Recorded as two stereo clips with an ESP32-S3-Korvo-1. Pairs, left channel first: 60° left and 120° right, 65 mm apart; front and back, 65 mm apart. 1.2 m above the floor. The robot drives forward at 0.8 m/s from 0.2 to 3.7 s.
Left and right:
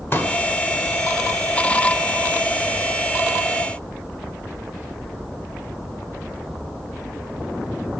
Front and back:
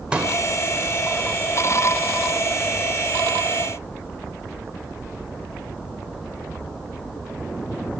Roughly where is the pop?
Left.